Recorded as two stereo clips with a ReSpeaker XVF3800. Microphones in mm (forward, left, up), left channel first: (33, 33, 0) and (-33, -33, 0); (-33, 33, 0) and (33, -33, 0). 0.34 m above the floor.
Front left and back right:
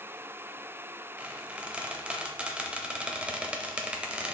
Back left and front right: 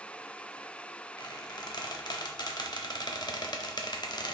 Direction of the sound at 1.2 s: 150° left.